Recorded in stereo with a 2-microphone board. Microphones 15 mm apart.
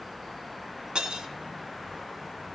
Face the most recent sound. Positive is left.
turn(degrees=-75)  # may be behind; listen again after turning